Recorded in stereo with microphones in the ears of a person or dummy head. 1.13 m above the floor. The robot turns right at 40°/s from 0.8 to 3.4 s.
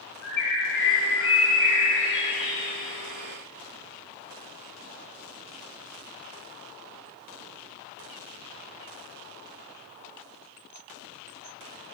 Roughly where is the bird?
Ahead.